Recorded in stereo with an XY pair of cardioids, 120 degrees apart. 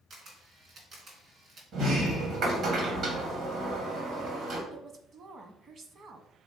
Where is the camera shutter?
50° right, 2.5 m.